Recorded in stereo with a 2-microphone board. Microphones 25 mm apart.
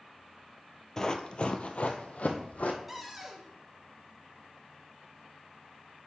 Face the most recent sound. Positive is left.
turn(degrees=-5)  # may be behind; listen again after turning